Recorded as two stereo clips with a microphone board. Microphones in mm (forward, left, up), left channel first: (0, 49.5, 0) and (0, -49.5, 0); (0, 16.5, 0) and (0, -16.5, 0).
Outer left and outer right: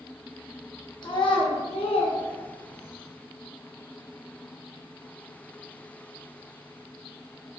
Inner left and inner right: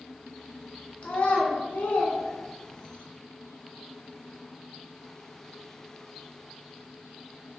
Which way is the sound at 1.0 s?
45° left (ahead or behind).